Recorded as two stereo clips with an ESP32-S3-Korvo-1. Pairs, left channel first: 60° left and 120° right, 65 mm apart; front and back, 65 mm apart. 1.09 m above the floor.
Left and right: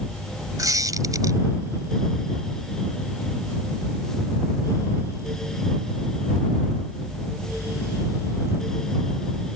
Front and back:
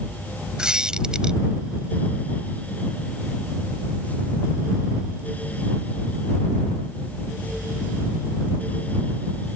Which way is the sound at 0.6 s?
100° right.